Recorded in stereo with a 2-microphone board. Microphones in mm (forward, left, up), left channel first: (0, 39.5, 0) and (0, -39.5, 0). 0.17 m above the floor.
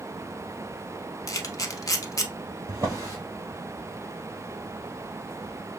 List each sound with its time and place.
1.3 s a camera shutter: 45° left (ahead or behind), 0.6 m
2.7 s a drawer: 40° right (ahead or behind), 2 m